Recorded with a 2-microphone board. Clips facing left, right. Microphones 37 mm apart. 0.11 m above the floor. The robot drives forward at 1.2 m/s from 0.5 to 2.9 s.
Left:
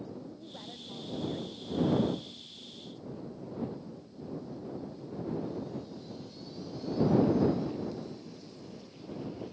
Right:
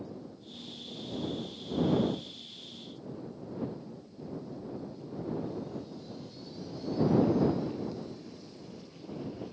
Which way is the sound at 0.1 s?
70° left (ahead or behind).